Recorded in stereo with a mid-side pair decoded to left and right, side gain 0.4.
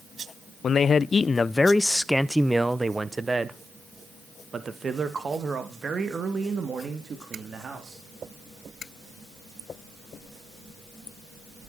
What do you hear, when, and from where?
0.6 s a man speaking: 55° left, 0.9 m; by 8.0 s 50° right, 3.5 m